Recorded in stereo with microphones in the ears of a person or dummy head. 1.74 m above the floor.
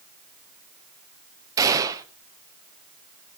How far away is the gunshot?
About 1.1 m.